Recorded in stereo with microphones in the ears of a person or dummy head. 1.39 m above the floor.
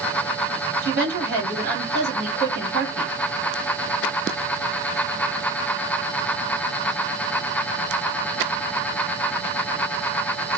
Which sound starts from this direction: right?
A woman speaking, at 0.8 s.